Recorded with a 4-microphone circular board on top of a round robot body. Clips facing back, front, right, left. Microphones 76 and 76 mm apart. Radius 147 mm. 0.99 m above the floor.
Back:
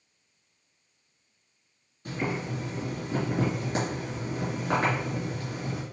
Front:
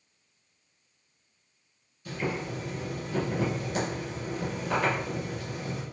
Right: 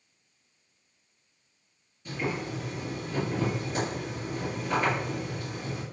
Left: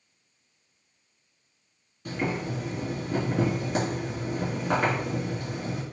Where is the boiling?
125° left, 3 m.